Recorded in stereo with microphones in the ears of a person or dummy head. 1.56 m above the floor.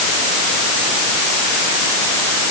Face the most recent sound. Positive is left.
No sound to turn to.